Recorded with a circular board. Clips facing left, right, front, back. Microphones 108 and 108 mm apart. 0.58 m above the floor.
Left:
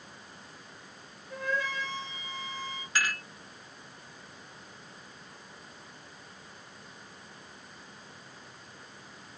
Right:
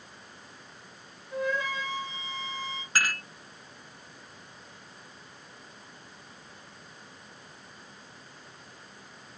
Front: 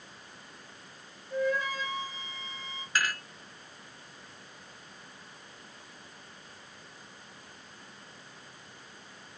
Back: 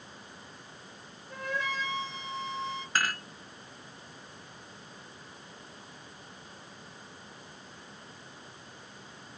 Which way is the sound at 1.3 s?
165° right.